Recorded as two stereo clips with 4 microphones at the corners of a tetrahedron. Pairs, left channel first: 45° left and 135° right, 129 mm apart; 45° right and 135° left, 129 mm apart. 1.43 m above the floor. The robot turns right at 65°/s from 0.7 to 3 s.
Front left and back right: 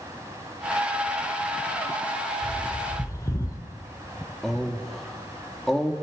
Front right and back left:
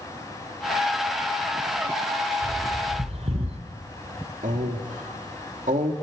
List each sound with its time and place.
2.4 s a bird: 70° left, 2 m; by 3.6 s 105° left, 2 m
4.4 s a man speaking: 130° left, 2.5 m